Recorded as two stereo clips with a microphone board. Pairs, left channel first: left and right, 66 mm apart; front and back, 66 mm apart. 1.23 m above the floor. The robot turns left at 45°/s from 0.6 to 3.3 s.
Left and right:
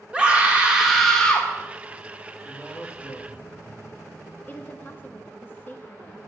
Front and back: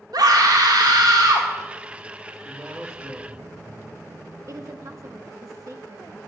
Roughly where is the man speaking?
Behind left.